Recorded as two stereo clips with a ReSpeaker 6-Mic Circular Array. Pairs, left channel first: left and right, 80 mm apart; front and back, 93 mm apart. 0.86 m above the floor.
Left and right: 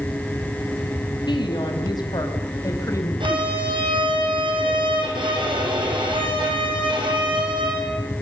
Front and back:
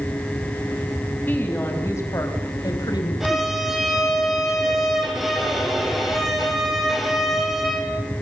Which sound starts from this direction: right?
A violin, at 3.2 s.